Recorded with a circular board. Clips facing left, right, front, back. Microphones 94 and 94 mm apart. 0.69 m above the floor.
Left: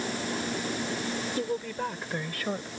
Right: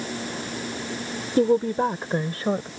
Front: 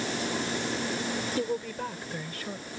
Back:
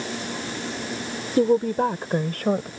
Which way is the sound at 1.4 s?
130° right.